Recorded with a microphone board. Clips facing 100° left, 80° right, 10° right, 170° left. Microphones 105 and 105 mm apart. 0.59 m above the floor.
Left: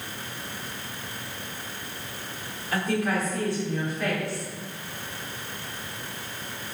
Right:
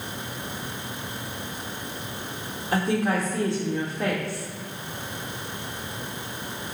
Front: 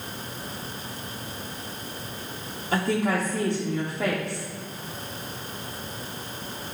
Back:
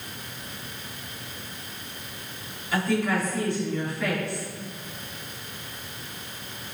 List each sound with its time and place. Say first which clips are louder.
2.7 s a woman speaking: right 2 dB, front 1 dB; 30° right, 1.5 m